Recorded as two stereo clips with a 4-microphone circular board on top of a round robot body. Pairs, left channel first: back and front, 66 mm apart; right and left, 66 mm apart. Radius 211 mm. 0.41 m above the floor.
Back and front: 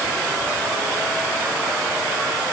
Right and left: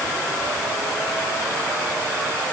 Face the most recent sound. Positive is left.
No sound to turn to.